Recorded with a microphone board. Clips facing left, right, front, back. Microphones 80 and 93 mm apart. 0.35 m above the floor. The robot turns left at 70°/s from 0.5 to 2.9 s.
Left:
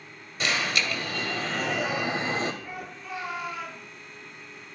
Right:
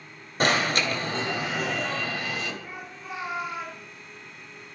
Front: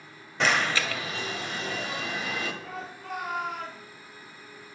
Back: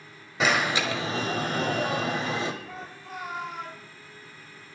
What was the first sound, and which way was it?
An alarm, 100° right.